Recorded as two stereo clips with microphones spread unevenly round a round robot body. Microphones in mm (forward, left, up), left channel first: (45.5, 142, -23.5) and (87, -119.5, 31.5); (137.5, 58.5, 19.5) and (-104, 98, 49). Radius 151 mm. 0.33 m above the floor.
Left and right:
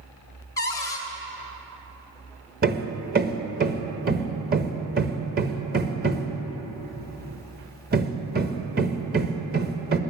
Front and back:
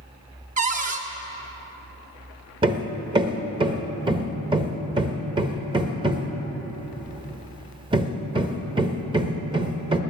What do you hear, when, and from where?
0.6 s a cupboard door: 140° left, 1.6 m
2.6 s hammering: 125° right, 1.1 m